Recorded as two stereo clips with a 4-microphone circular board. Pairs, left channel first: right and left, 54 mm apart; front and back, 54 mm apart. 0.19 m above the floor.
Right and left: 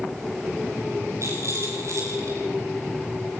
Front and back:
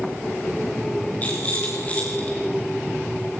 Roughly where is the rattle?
Ahead left.